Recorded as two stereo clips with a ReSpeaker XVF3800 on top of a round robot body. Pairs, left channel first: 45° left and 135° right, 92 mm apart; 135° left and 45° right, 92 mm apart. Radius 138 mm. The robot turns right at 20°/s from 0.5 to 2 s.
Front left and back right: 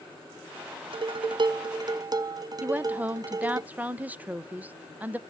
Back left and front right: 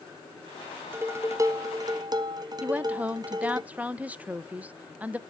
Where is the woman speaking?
90° right, 0.6 m.